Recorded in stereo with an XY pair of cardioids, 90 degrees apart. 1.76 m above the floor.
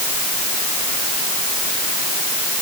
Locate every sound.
Only background noise.